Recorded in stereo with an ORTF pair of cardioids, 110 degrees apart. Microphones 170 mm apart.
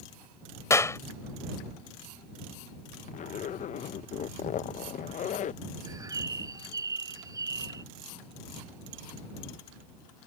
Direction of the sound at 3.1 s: 45° left.